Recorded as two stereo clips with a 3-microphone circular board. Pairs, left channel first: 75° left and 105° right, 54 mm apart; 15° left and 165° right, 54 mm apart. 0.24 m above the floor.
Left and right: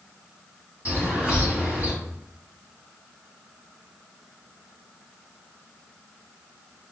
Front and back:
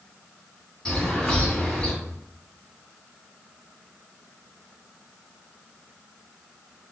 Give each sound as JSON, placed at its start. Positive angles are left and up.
{"t": 0.8, "sound": "a bird", "azimuth_deg": -55, "distance_m": 1.5}